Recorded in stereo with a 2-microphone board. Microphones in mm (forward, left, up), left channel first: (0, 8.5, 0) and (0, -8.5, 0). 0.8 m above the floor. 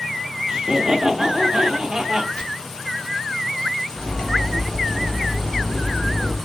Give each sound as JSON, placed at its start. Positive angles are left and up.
{"t": 0.5, "sound": "laughter", "side_deg": -30, "distance_m": 0.6}
{"t": 2.4, "sound": "chopping", "side_deg": 65, "distance_m": 1.0}
{"t": 3.9, "sound": "cutlery clinking", "side_deg": 55, "distance_m": 1.0}